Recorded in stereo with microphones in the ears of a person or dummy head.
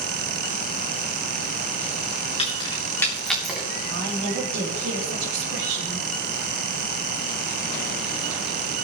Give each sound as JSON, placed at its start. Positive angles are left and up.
{"t": 2.4, "sound": "keys jangling", "side_deg": 30, "distance_m": 3.0}
{"t": 3.9, "sound": "a woman speaking", "side_deg": -65, "distance_m": 4.0}